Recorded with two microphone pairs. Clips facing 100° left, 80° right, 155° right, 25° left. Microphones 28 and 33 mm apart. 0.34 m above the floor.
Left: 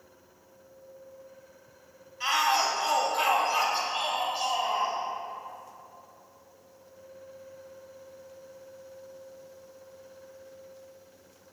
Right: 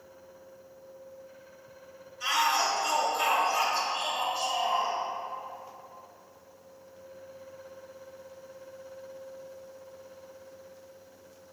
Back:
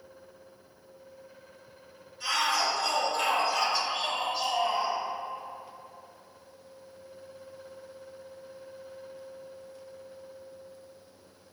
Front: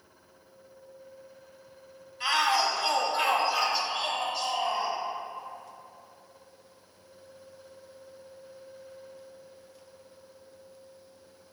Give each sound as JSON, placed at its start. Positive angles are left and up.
{"t": 2.2, "sound": "a shout", "azimuth_deg": 65, "distance_m": 2.5}